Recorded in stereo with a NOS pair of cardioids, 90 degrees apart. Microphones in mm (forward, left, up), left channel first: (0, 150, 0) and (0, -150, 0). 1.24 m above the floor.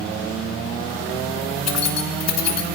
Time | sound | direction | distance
1.7 | keys jangling | 60° left | 2.5 m